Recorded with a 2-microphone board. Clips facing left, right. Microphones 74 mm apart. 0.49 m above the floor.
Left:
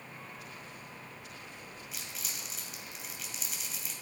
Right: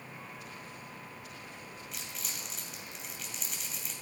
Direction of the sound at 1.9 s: Centre (ahead or behind).